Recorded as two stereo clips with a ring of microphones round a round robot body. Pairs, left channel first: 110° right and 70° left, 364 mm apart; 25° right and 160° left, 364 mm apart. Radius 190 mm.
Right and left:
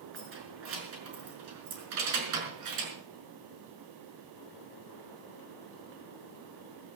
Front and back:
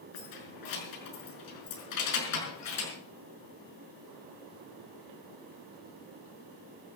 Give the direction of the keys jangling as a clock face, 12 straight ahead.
12 o'clock.